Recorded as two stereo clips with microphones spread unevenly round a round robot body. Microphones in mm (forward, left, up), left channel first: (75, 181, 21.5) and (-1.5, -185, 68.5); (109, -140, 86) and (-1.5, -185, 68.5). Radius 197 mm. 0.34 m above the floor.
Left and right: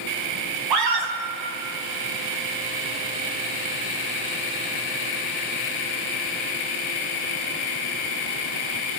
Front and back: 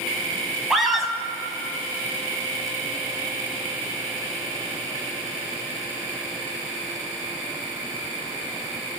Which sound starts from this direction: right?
A scream, at 0.7 s.